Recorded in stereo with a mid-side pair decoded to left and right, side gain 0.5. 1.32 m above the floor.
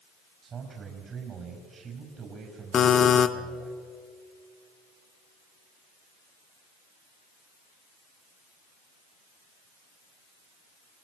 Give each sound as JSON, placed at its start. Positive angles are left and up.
{"t": 0.4, "sound": "a man speaking", "azimuth_deg": -45, "distance_m": 6.0}
{"t": 2.7, "sound": "a buzzer", "azimuth_deg": 50, "distance_m": 1.3}